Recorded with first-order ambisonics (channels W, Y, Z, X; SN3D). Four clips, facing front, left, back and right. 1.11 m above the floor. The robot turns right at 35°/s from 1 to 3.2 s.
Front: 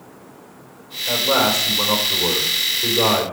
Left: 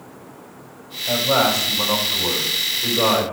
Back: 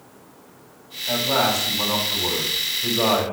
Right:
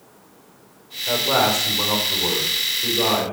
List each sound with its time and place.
1.1 s a man speaking: 60° right, 3.5 m; by 3.2 s 15° left, 3.5 m